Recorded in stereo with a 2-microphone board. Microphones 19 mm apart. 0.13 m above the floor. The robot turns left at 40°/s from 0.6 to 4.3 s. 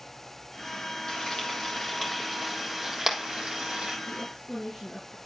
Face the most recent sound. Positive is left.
turn(degrees=25)  # may be behind; listen again after turning